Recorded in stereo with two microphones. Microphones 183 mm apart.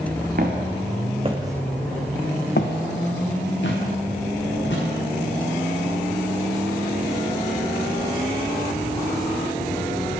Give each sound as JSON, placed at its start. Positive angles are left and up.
{"t": 0.4, "sound": "footsteps", "side_deg": -55, "distance_m": 1.3}